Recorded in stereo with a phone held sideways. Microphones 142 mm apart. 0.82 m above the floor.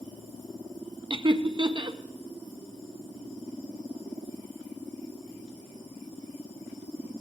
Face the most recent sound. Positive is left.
turn(degrees=-35)  # may be behind; listen again after turning